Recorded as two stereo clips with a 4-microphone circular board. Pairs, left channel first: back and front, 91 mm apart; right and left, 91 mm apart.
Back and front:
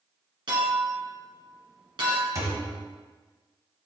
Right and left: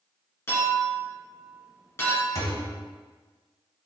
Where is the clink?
30° right, 1.9 m.